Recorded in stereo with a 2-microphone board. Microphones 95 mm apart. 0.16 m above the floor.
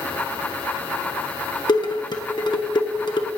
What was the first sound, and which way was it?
Dishes clattering, 50° left (ahead or behind).